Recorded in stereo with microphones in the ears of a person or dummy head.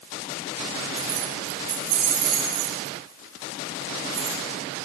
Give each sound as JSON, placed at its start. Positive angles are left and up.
{"t": 1.0, "sound": "keys jangling", "side_deg": -75, "distance_m": 7.0}